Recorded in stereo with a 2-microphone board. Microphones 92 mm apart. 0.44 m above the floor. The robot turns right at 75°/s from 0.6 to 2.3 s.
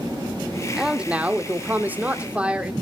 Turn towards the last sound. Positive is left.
turn(degrees=-15)  # may be behind; listen again after turning